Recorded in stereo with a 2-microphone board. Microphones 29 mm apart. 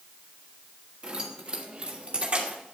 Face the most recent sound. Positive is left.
turn(degrees=-45)  # may be behind; listen again after turning